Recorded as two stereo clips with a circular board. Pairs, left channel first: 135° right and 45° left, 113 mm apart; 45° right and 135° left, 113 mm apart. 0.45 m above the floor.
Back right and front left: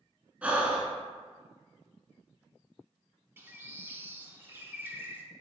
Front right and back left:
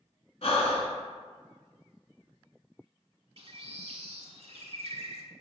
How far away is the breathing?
About 0.7 m.